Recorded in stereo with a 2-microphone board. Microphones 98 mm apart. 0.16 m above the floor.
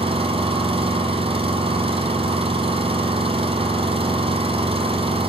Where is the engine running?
70° right (ahead or behind), 1.3 m.